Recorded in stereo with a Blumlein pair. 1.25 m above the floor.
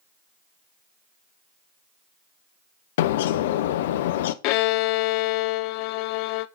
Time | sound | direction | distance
3.0 | a bird | 55° left | 0.6 m
4.4 | a violin | 45° left | 0.5 m